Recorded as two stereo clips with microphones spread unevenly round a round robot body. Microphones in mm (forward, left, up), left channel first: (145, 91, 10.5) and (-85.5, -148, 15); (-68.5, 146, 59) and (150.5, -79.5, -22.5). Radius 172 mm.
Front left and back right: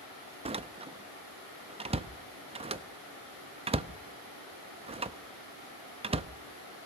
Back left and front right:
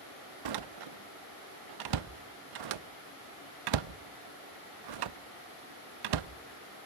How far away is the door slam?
About 0.7 m.